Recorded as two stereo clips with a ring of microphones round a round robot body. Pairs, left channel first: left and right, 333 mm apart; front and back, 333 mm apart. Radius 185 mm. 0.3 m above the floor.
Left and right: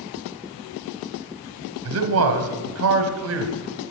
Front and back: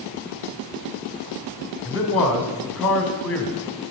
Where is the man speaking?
85° right, 1.1 m.